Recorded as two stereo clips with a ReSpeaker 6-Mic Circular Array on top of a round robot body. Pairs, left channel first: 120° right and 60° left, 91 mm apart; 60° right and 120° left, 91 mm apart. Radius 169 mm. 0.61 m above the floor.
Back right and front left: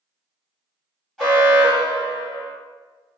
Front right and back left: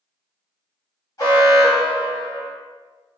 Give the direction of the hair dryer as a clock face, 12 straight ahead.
No hair dryer in this recording.